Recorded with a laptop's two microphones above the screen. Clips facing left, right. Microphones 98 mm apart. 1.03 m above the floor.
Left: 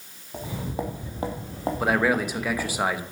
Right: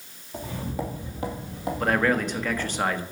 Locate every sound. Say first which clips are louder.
0.3 s footsteps: even; 15° left (ahead or behind), 1.5 m; by 2.8 s 45° left (ahead or behind), 2 m
1.8 s a man speaking: even; 10° left (ahead or behind), 0.9 m